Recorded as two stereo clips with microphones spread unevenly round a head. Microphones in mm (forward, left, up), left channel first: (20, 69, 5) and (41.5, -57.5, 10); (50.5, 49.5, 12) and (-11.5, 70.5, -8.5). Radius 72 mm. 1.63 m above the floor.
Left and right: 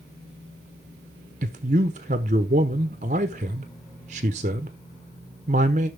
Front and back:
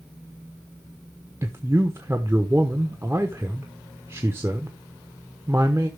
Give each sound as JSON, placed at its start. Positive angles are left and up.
{"t": 1.4, "sound": "a man speaking", "azimuth_deg": -120, "distance_m": 0.9}